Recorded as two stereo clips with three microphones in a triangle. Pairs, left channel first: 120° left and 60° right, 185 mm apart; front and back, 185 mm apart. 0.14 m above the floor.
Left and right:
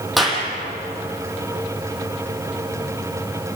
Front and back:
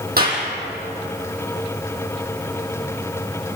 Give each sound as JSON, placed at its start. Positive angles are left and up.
{"t": 0.2, "sound": "a clap", "azimuth_deg": -150, "distance_m": 5.0}